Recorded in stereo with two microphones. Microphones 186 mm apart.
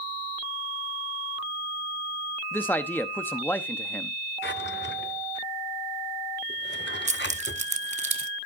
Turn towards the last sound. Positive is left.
turn(degrees=-40)  # may be behind; listen again after turning